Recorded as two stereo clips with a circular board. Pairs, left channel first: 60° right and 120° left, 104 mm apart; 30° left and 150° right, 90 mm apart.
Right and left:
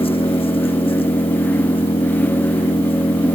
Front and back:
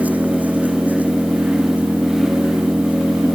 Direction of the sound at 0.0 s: 80° right.